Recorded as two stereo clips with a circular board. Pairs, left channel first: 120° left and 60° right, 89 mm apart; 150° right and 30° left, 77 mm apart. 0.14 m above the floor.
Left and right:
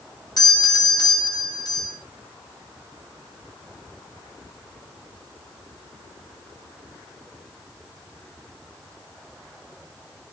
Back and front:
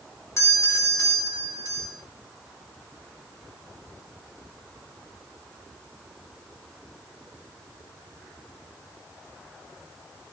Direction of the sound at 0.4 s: 160° left.